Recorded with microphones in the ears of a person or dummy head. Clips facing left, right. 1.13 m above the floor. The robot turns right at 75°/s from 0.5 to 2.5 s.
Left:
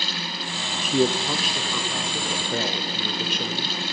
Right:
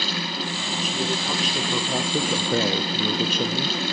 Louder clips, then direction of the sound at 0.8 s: Left 7 dB; 130° left.